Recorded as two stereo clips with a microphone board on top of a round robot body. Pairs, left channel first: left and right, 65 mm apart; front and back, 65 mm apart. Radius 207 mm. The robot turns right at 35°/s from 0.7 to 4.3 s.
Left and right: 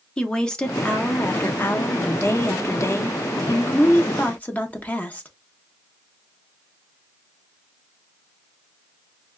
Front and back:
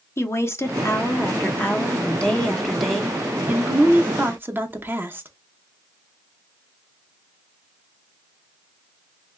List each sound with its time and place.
0.2 s a woman speaking: 15° left, 1.0 m; by 5.3 s 145° left, 1.0 m